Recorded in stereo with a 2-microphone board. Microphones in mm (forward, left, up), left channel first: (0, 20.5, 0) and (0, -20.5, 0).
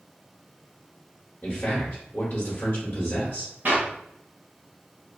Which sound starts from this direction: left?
A man speaking, at 1.4 s.